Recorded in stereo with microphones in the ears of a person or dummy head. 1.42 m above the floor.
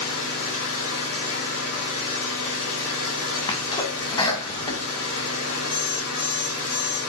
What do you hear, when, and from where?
0.0 s an engine running: 60° left (ahead or behind), 3.5 m
3.5 s a sneeze: 25° left (ahead or behind), 2.0 m
5.7 s an alarm clock: 70° left (ahead or behind), 4 m